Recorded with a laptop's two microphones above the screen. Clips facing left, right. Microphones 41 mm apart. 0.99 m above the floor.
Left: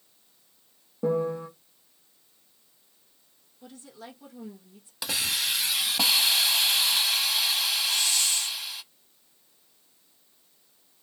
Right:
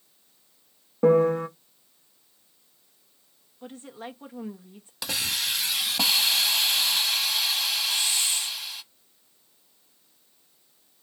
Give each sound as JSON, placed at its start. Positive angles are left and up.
{"t": 1.0, "sound": "a piano", "side_deg": -65, "distance_m": 0.5}
{"t": 3.6, "sound": "a woman speaking", "side_deg": -45, "distance_m": 1.0}
{"t": 5.0, "sound": "a hiss", "side_deg": 0, "distance_m": 0.7}
{"t": 7.8, "sound": "a hiss", "side_deg": -25, "distance_m": 1.5}